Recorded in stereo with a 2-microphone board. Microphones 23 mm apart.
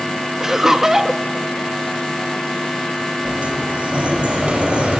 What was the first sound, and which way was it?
Laughter, 15° right (ahead or behind).